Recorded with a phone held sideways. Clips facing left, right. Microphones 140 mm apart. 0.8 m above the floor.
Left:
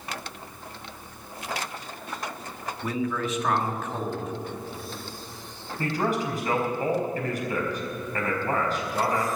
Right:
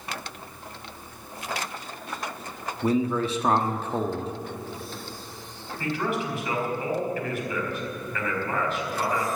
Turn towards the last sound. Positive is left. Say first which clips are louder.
# left 2 dB
turn(degrees=45)  # may be behind; listen again after turning